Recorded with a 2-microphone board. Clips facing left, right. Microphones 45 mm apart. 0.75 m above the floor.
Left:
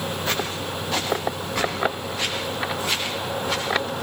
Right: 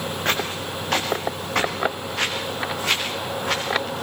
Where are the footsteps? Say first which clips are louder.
Right 4 dB; 60° right (ahead or behind), 7.5 m; by 4.0 s 80° right, 8.5 m.